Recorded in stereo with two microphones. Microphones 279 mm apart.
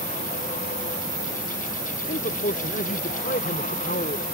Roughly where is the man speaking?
Left.